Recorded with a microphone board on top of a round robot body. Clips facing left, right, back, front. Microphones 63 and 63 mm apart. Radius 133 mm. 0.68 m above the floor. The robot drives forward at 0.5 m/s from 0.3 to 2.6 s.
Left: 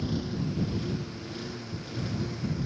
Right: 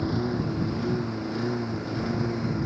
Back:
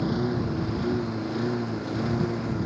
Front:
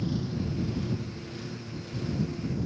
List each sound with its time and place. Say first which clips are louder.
0.0 s a lawn mower: right 5 dB, back 6 dB; 140° right; by 2.7 s 145° right